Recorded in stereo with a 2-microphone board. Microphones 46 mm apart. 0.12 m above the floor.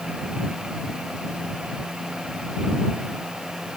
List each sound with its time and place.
Only background noise.